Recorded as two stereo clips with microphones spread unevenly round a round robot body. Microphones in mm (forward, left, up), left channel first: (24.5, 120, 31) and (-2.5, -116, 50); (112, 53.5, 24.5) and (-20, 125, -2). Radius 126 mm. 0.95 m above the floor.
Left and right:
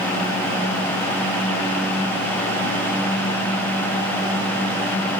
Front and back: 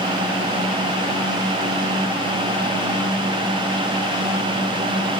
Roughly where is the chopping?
I don't hear chopping.